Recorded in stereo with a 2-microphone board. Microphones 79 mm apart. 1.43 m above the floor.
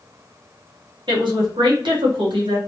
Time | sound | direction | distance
1.1 | a woman speaking | 85° right | 1.3 m